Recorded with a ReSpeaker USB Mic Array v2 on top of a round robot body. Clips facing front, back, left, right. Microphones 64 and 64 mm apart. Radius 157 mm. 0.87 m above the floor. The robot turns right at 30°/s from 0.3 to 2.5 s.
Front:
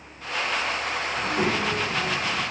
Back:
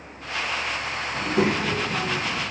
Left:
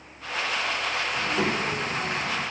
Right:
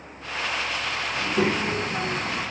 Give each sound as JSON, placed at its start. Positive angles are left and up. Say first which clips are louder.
{"t": 1.1, "sound": "a child speaking", "louder": "back 3 dB, right 4 dB", "azimuth_deg": -160, "distance_m": 0.8}